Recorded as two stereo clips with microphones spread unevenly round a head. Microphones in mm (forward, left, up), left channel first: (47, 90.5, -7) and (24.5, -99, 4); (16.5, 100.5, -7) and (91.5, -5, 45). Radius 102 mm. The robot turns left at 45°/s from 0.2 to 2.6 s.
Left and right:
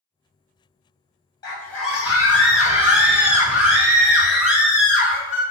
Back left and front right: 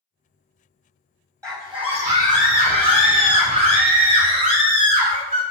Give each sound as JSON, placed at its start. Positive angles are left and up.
{"t": 1.4, "sound": "a scream", "azimuth_deg": 15, "distance_m": 1.7}